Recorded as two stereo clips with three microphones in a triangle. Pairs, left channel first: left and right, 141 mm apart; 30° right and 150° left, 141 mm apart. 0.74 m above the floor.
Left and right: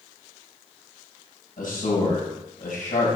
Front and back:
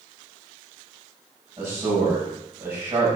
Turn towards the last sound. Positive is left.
turn(degrees=80)